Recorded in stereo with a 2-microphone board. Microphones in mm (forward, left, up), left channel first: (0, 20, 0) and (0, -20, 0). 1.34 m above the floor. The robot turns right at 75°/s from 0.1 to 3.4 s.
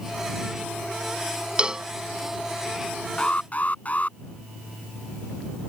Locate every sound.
1.6 s a cowbell: 25° right (ahead or behind); by 1.9 s 10° right (ahead or behind)
3.2 s an alarm: 20° left (ahead or behind); by 4.2 s 40° left (ahead or behind)